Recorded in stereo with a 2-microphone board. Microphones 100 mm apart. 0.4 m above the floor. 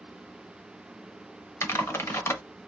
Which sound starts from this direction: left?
Typing on a keyboard, at 1.6 s.